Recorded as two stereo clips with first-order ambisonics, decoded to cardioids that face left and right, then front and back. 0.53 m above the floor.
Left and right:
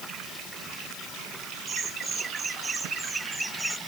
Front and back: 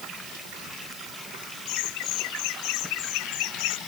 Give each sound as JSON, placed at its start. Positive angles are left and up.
{"t": 1.7, "sound": "laughter", "azimuth_deg": -20}